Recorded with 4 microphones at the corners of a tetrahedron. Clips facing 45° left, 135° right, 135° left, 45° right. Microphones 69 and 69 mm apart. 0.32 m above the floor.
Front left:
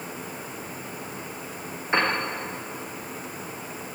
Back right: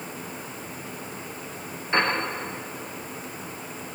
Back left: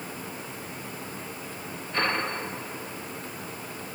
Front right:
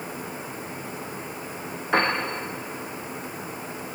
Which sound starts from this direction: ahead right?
A piano, at 1.9 s.